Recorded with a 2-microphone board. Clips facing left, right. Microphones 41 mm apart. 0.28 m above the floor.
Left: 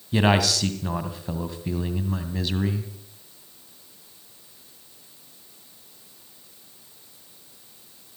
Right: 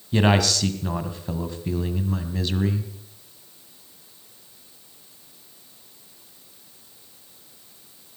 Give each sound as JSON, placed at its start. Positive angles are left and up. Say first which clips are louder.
{"t": 0.1, "sound": "a man speaking", "louder": "right 1 dB", "side_deg": 5, "distance_m": 2.0}